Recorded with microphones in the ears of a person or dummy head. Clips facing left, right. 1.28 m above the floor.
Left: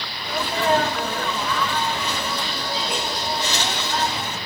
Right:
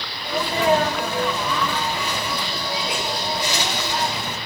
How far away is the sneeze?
About 5 m.